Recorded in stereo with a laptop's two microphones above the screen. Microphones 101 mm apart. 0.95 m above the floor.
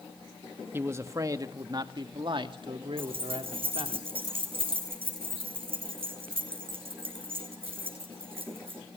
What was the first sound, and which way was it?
A man speaking, 25° right (ahead or behind).